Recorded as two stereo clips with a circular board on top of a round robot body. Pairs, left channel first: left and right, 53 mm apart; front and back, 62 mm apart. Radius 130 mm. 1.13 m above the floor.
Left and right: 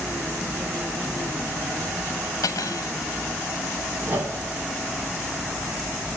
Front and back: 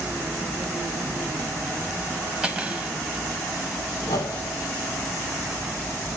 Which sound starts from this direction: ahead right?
A whoosh, at 4.0 s.